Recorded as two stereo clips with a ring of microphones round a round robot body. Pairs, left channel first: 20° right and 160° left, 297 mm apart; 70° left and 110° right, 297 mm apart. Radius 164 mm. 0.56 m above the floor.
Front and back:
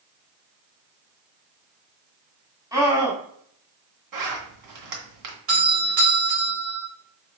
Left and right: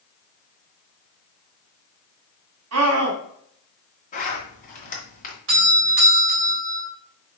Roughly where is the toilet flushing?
No toilet flushing in this recording.